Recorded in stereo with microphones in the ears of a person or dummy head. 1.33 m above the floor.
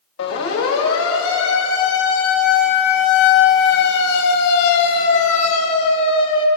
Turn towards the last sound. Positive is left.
turn(degrees=30)  # may be behind; listen again after turning